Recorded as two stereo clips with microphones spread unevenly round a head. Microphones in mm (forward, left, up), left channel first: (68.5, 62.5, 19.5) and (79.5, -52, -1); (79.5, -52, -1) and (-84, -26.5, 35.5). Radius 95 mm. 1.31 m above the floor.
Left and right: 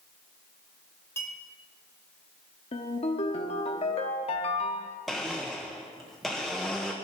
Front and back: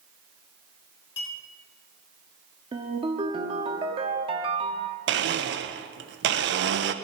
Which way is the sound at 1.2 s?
25° left.